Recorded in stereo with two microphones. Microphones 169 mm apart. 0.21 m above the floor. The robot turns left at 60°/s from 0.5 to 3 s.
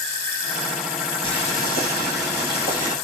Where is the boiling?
150° left, 3 m; by 2.9 s 50° left, 3 m.